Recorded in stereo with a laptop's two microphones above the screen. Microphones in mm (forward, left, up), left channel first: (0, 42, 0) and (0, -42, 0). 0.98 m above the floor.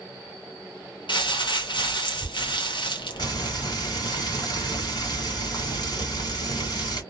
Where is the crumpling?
70° left (ahead or behind), 0.8 m.